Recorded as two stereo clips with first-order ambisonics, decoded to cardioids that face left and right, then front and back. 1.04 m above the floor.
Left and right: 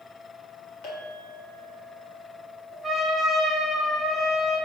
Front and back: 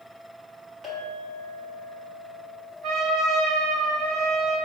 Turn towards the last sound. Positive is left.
turn(degrees=165)